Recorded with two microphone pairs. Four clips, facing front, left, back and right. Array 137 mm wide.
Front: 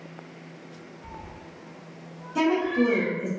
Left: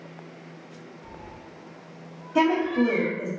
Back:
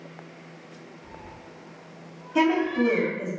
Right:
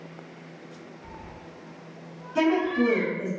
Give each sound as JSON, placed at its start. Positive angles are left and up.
{"t": 1.0, "sound": "a cat meowing", "azimuth_deg": -10, "distance_m": 0.5}
{"t": 2.4, "sound": "a woman speaking", "azimuth_deg": 110, "distance_m": 1.1}